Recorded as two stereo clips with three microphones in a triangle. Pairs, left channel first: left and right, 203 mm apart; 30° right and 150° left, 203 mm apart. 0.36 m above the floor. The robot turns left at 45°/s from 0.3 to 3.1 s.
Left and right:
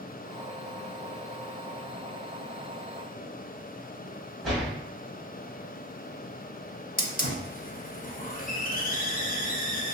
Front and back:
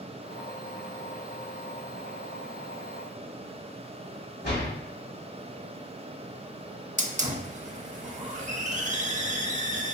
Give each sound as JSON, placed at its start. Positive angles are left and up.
{"t": 4.4, "sound": "a door slam", "azimuth_deg": 0, "distance_m": 1.7}
{"t": 7.0, "sound": "a hiss", "azimuth_deg": 115, "distance_m": 0.5}